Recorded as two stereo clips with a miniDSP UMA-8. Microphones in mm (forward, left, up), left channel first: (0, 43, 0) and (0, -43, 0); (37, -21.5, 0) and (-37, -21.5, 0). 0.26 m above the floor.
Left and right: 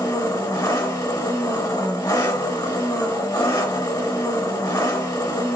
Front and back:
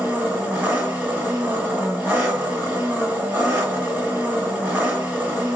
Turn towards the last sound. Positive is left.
turn(degrees=115)